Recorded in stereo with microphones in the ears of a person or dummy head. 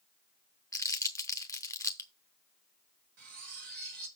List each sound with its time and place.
0.7 s crumpling: 20° left (ahead or behind), 0.6 m
3.2 s cutlery clinking: 50° right (ahead or behind), 1.2 m